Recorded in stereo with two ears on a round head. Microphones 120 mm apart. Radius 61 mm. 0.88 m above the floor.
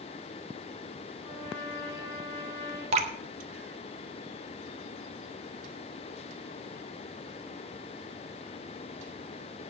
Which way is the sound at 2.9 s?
45° right (ahead or behind).